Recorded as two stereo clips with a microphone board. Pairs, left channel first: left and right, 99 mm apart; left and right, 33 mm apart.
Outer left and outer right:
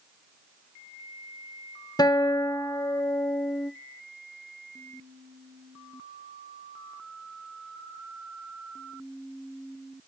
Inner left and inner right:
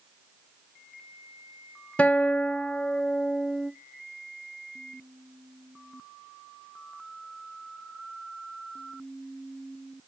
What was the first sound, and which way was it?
A guitar, 40° left (ahead or behind).